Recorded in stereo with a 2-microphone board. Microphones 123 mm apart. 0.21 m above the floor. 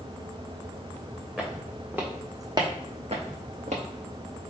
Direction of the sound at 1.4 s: Centre (ahead or behind).